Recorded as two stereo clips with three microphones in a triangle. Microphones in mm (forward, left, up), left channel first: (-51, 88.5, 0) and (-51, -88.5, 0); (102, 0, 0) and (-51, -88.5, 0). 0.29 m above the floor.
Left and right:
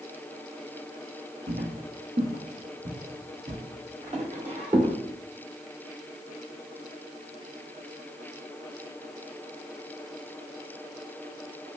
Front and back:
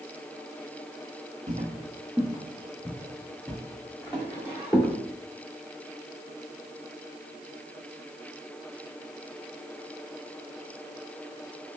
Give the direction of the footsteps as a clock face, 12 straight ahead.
3 o'clock.